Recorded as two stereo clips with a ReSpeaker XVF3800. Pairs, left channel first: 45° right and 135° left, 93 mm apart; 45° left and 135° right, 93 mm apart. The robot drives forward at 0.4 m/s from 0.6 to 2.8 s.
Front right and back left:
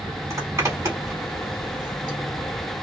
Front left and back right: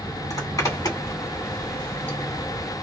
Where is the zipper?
85° left, 1.6 m; by 2.2 s 110° left, 1.7 m.